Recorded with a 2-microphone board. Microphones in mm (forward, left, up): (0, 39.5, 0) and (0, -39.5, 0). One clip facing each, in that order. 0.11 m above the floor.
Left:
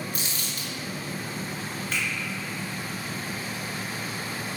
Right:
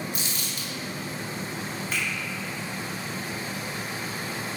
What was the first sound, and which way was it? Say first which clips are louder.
Crumpling: even; 40° left (ahead or behind).